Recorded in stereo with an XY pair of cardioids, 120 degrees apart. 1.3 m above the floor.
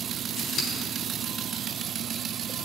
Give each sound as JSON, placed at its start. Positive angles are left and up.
{"t": 0.4, "sound": "scissors", "azimuth_deg": 55, "distance_m": 4.0}